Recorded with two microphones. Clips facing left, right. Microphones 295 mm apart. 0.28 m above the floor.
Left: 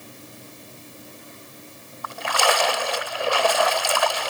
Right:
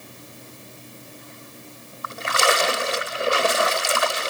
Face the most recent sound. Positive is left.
turn(degrees=-25)  # may be behind; listen again after turning